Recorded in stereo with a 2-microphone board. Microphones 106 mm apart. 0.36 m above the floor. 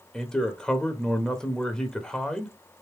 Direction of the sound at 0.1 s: 5° left (ahead or behind).